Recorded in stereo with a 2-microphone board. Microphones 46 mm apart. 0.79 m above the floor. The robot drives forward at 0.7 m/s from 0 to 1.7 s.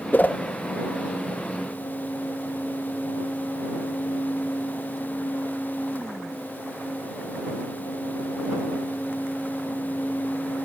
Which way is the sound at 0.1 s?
40° left (ahead or behind).